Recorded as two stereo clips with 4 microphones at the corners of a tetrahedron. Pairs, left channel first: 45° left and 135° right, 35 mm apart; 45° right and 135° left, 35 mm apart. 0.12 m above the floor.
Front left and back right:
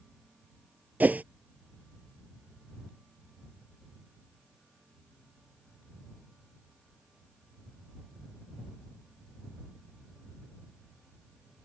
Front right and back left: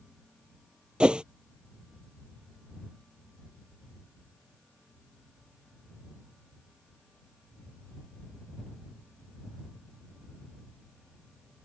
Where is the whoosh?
165° right.